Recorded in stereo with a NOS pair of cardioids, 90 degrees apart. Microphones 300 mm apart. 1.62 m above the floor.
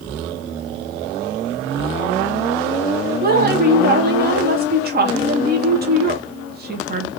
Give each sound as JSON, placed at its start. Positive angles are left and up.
{"t": 3.2, "sound": "a woman speaking", "azimuth_deg": -35, "distance_m": 1.1}